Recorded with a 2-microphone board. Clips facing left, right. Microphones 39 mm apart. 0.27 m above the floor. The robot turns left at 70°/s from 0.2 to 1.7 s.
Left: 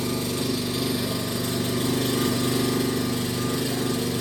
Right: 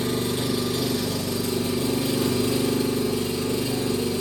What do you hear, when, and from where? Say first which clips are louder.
0.0 s an engine running: right 2 dB; 135° right, 3 m; by 4.2 s 120° left, 3 m